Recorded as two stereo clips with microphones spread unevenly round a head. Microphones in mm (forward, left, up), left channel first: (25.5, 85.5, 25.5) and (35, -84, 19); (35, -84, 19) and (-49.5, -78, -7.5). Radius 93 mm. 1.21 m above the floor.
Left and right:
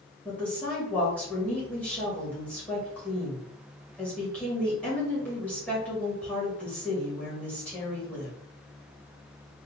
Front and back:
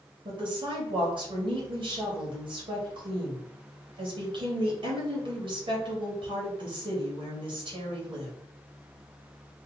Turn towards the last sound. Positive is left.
turn(degrees=175)